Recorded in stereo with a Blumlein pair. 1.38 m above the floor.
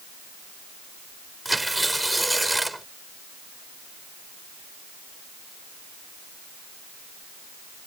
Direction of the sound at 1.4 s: 5° right.